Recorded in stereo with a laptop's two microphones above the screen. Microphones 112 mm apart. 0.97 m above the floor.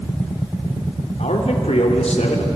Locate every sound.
1.2 s a man speaking: 80° left, 2.5 m